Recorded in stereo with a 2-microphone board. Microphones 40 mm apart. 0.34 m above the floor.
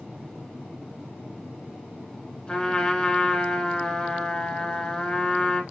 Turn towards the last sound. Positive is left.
turn(degrees=20)  # may be behind; listen again after turning